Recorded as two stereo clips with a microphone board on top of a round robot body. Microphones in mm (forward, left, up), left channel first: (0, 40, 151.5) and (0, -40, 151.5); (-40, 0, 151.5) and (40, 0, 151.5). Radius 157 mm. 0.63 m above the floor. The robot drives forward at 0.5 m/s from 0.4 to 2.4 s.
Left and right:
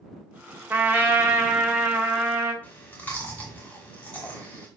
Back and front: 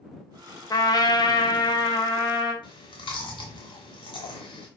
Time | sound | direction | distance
0.7 | a trumpet | 150° right | 1.0 m
2.6 | chewing | 160° left | 0.7 m